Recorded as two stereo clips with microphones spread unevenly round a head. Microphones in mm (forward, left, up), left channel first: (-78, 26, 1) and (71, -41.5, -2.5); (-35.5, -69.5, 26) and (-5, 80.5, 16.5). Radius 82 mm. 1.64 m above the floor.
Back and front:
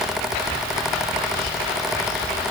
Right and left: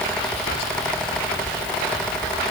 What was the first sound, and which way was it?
Only background noise.